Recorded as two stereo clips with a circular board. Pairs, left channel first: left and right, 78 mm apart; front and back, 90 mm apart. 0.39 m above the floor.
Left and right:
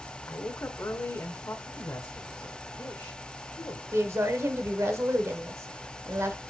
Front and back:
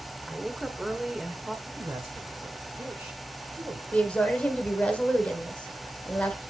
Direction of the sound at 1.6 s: 130° left.